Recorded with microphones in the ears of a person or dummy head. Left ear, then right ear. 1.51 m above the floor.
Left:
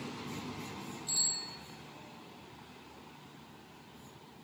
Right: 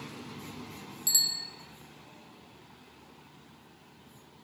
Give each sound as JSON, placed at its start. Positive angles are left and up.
{"t": 1.1, "sound": "a bicycle bell", "side_deg": -75, "distance_m": 3.0}